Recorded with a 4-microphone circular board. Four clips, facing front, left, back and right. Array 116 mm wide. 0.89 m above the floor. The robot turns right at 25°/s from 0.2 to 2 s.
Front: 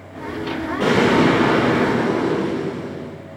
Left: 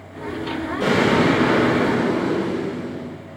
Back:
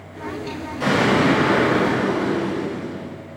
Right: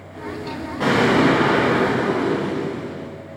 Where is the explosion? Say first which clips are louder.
Right 1 dB, front 2 dB; 65° right, 1.6 m; by 3.1 s 35° right, 1.6 m.